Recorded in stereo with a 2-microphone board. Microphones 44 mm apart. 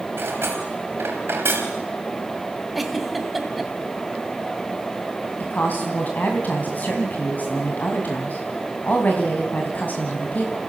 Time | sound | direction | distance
0.2 | cutlery clinking | 65° right (ahead or behind) | 3.5 m
2.8 | a giggle | centre (ahead or behind) | 1.5 m
5.4 | a woman speaking | 40° left (ahead or behind) | 2.5 m